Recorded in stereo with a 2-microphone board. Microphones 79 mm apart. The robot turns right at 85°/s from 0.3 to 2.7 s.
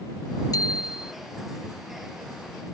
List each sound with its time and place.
0.5 s a bicycle bell: 55° left; by 1.1 s 105° left